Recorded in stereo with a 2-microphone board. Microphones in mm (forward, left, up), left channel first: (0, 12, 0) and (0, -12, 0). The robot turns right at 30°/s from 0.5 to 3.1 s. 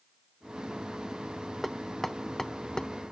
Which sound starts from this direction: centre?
Knocking, at 1.6 s.